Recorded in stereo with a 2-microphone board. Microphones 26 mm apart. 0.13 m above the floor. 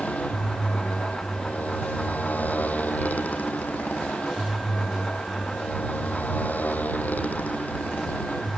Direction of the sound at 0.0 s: 75° left (ahead or behind).